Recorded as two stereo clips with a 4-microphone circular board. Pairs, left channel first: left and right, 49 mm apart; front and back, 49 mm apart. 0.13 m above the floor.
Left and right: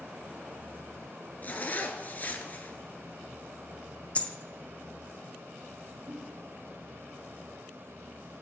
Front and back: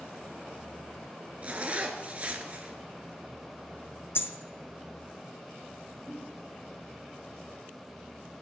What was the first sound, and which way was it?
A zipper, 130° left.